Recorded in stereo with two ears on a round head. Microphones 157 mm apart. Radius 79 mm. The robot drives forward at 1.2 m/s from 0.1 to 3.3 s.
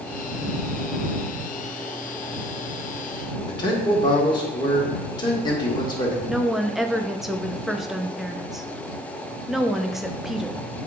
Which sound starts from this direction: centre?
A woman speaking, at 6.3 s.